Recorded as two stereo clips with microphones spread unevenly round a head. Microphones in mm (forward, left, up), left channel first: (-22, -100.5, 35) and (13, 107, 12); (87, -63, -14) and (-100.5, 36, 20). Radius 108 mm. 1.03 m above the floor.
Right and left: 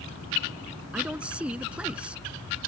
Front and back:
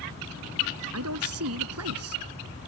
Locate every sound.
0.9 s a man speaking: 165° left